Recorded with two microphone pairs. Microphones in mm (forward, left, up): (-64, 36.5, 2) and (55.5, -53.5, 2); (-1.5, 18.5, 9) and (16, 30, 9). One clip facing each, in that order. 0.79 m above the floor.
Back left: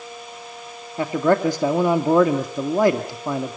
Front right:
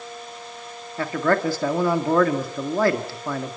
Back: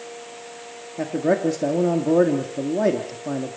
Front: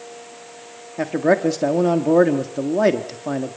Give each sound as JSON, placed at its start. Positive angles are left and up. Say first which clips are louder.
{"t": 1.0, "sound": "a man speaking", "louder": "back left 3 dB, front 3 dB", "azimuth_deg": 75, "distance_m": 1.7}